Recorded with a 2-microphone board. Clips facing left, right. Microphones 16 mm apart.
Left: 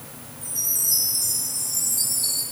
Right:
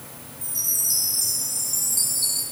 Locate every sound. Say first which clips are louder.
0.4 s a chime: even; 55° right (ahead or behind), 4 m